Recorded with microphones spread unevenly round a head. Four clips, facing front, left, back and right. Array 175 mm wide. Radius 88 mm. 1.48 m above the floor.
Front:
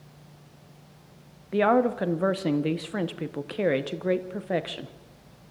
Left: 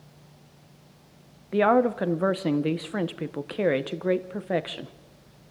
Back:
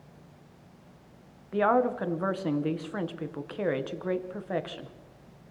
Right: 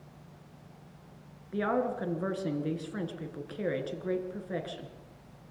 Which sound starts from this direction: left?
A woman speaking, at 1.5 s.